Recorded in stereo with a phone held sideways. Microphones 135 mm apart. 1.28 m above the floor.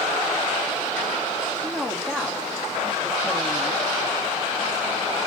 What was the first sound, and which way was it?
A woman speaking, 10° left (ahead or behind).